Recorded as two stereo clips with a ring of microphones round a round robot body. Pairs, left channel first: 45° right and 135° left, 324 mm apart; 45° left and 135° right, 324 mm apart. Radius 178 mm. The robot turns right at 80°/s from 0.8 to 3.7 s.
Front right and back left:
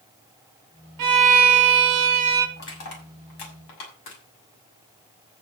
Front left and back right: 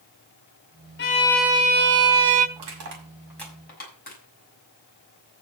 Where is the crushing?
110° right, 6.5 m; by 5.4 s 20° right, 6.5 m.